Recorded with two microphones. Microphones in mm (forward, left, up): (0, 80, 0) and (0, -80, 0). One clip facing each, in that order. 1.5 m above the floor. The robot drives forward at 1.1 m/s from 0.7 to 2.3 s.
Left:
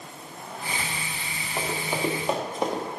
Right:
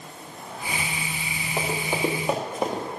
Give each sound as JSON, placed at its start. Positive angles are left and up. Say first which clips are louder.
{"t": 1.6, "sound": "running footsteps", "louder": "right 2 dB", "side_deg": -15, "distance_m": 2.5}